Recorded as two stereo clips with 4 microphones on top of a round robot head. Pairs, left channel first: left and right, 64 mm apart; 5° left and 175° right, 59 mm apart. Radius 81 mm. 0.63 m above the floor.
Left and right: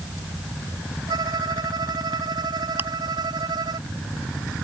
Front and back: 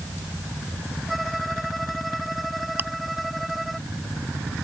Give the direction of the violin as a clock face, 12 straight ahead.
3 o'clock.